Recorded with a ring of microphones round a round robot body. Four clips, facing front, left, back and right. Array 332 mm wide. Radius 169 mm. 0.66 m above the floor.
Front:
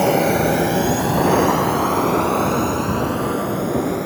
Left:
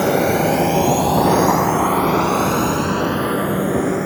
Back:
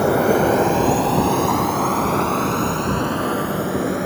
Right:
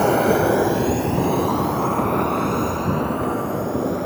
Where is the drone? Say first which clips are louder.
Left 1 dB, even; 35° left; by 4.1 s 100° left.